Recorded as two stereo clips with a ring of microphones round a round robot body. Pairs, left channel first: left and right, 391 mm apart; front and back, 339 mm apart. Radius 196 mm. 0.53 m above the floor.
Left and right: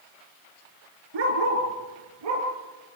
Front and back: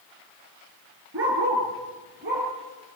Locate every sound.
1.1 s a dog barking: 120° right, 3.5 m; by 2.5 s 115° right, 5 m